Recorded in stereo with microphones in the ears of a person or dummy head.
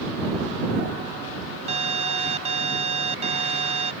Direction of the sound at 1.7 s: 35° right (ahead or behind).